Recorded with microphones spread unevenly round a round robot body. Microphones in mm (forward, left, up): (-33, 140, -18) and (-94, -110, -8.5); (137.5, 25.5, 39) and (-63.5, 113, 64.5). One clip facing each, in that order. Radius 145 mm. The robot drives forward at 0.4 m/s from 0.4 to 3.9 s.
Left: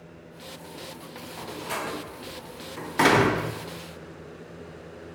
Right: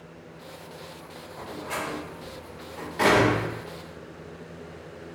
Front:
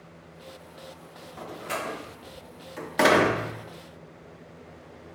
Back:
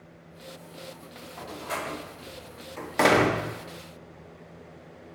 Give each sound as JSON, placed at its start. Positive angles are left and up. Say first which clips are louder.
{"t": 1.4, "sound": "a door slam", "louder": "even, front 1 dB", "azimuth_deg": 30, "distance_m": 1.2}